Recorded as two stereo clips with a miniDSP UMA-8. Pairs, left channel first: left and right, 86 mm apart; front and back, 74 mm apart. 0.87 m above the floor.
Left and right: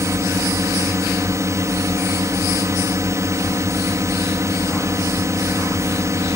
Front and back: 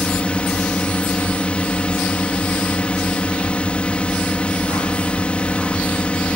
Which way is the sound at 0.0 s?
65° right.